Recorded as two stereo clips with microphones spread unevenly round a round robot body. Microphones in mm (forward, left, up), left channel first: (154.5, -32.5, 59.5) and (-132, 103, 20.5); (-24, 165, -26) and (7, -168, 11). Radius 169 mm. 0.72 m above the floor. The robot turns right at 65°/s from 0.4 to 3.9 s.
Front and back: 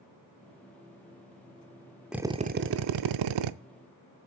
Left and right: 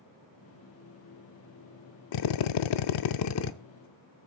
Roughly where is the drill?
Ahead left.